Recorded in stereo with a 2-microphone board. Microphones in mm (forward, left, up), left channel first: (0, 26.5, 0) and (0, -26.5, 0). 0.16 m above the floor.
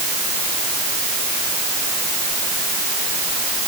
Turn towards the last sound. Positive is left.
No sound to turn to.